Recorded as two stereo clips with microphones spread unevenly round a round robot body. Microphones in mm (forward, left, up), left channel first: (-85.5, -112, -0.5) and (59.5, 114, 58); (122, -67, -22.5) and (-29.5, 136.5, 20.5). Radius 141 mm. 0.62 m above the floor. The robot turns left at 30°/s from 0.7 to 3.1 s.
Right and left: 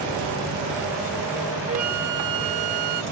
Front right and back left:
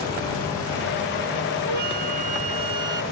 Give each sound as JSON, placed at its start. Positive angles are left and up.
{"t": 1.7, "sound": "a flute", "azimuth_deg": 120}